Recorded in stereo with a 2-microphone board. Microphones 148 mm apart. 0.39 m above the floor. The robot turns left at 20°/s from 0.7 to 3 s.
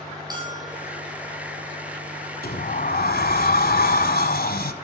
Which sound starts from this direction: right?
A bell, at 0.3 s.